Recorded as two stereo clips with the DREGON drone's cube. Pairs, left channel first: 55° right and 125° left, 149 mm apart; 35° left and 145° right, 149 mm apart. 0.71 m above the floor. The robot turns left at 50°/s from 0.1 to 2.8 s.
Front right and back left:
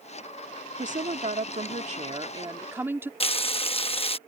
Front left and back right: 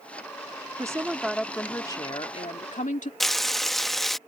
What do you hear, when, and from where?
0.8 s a woman speaking: 150° left; by 3.1 s 50° left
3.2 s frying: 55° right